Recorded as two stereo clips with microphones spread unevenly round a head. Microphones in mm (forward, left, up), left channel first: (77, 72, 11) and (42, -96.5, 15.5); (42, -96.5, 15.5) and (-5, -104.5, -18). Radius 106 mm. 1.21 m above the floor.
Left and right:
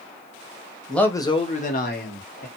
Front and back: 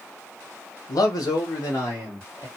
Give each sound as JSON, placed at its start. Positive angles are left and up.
{"t": 0.9, "sound": "a man speaking", "azimuth_deg": -5, "distance_m": 0.9}